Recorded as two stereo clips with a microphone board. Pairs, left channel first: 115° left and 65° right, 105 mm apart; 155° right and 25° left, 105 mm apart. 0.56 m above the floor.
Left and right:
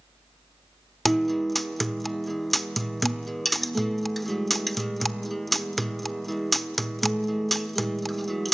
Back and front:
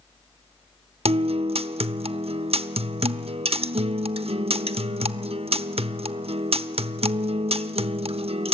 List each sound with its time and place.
1.1 s a guitar: 25° left, 0.8 m